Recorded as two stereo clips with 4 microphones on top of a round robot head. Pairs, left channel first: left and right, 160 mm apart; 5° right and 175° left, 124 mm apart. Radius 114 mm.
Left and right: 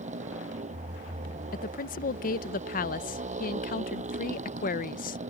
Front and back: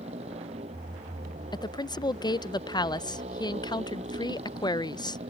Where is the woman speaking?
50° left.